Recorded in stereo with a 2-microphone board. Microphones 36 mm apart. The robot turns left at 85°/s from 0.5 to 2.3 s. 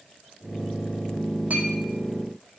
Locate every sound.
1.5 s a clink: 60° right (ahead or behind), 4.5 m; by 1.7 s 45° right (ahead or behind), 4.5 m